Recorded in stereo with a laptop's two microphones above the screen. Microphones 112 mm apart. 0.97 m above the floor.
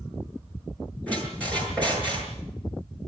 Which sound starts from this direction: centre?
A squeak, at 1.1 s.